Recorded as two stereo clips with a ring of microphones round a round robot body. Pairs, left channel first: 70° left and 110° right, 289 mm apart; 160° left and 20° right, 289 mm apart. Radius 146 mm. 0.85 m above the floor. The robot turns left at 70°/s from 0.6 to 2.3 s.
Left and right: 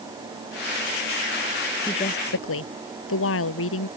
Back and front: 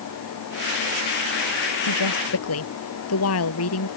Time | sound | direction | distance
1.9 | a woman speaking | 145° left | ?